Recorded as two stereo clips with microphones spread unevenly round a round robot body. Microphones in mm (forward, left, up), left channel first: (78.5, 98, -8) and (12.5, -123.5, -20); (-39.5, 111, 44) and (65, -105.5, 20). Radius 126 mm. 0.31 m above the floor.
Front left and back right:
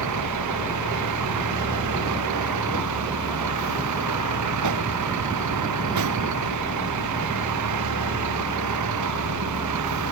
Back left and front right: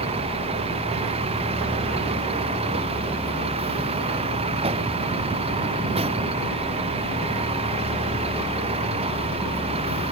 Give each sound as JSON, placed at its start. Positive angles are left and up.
{"t": 0.0, "sound": "a vehicle", "azimuth_deg": -130}